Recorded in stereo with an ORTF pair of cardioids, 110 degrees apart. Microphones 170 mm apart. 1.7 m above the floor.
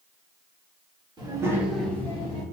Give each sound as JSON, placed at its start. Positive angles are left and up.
{"t": 1.2, "sound": "a child speaking", "azimuth_deg": -25, "distance_m": 1.6}